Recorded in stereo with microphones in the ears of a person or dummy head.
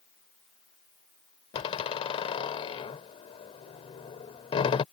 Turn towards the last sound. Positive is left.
turn(degrees=35)  # may be behind; listen again after turning